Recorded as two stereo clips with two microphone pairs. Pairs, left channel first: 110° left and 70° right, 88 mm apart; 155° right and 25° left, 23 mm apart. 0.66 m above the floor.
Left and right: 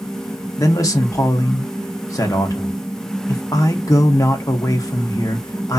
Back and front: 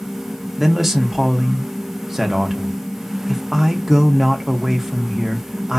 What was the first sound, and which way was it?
A man speaking, 100° left.